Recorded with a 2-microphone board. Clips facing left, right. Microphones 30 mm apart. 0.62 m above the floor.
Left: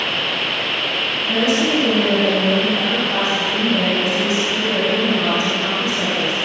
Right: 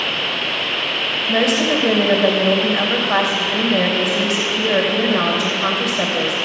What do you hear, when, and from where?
1.3 s a woman speaking: 70° right (ahead or behind), 3.5 m